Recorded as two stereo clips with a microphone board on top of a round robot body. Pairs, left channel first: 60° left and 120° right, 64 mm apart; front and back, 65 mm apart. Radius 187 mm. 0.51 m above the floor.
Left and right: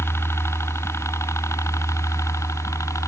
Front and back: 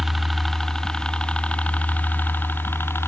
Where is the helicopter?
95° left; by 3.1 s 40° left.